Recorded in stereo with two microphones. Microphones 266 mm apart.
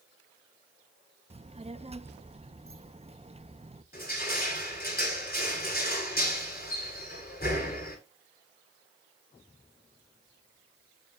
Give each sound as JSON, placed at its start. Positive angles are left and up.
{"t": 1.3, "sound": "a child speaking", "side_deg": -25, "distance_m": 0.6}
{"t": 3.9, "sound": "crushing", "side_deg": 35, "distance_m": 6.5}